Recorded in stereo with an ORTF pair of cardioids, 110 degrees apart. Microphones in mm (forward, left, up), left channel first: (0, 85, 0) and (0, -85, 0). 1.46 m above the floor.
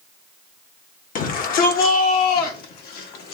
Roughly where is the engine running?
No engine running in this recording.